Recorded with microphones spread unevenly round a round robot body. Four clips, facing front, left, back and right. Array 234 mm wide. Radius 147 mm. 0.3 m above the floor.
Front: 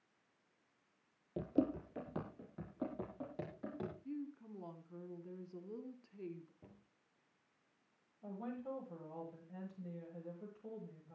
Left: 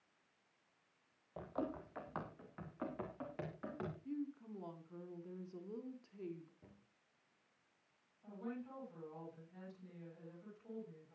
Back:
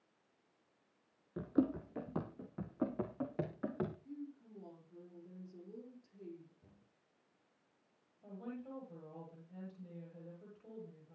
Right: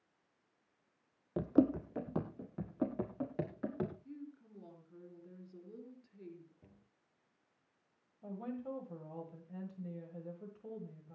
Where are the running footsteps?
105° right, 0.8 m; by 4.0 s 135° right, 3 m.